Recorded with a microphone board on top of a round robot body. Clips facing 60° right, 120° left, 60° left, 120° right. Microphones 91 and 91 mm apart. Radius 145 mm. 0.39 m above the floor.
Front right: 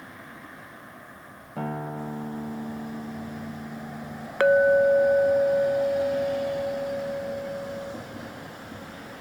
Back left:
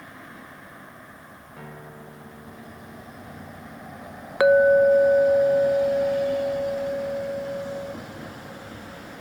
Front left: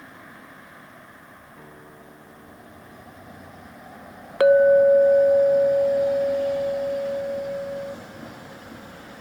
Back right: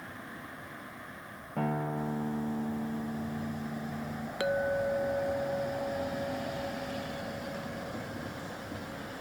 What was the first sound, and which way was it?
A guitar, 100° right.